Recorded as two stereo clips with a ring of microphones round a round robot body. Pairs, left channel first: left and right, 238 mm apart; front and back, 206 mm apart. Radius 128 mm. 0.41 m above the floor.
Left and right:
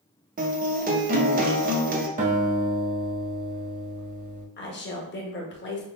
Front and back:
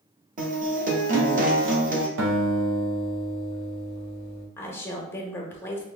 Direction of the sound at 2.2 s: 150° right.